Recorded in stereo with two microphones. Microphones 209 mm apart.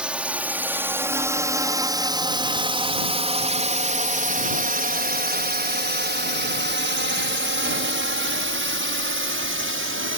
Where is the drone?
5° right (ahead or behind); by 10.2 s 75° right (ahead or behind).